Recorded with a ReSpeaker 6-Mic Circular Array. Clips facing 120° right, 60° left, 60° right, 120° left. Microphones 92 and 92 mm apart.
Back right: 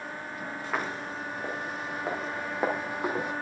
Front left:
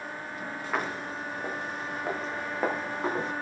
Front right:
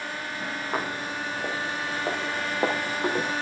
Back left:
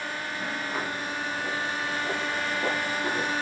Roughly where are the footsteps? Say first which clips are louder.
Front left 1 dB, front right 1 dB; ahead right.